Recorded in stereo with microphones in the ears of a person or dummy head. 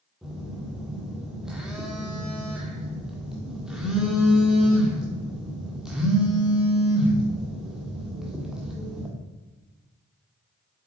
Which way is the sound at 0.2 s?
Centre (ahead or behind).